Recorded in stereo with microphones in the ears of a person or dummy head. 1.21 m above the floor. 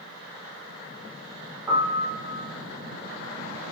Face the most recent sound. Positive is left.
turn(degrees=-10)  # may be behind; listen again after turning